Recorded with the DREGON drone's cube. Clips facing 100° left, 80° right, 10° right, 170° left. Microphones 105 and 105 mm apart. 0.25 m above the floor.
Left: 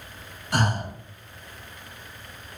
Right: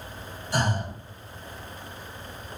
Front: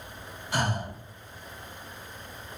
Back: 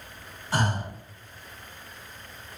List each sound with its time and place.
0.5 s breathing: 115° left, 0.7 m